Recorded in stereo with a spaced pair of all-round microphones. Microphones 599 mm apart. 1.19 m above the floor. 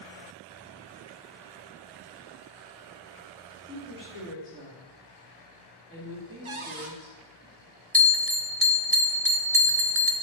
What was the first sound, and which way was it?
A woman speaking, 20° right (ahead or behind).